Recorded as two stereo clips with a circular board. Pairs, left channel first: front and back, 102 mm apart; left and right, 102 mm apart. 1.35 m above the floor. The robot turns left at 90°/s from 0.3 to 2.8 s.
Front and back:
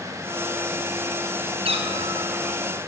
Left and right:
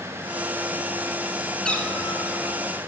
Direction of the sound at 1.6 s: 175° left.